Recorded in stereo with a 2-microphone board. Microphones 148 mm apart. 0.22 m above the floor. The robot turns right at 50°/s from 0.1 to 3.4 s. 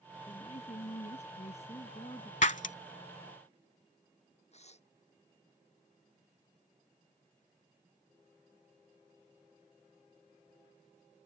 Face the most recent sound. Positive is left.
turn(degrees=50)  # may be behind; listen again after turning